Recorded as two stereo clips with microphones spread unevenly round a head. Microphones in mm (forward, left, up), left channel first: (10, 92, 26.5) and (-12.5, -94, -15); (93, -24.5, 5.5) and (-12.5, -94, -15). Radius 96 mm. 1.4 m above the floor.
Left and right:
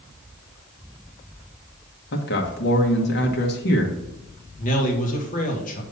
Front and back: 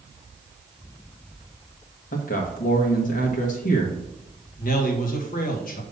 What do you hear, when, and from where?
2.1 s a man speaking: 55° left, 1.1 m
4.6 s a man speaking: 35° left, 1.6 m